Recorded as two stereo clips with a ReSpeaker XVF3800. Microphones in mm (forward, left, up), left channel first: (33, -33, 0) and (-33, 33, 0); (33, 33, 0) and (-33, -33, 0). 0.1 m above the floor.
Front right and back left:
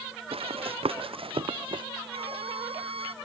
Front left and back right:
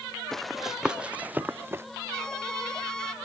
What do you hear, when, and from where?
0.3 s running footsteps: 130° left; by 1.9 s 165° left
2.1 s a violin: 130° left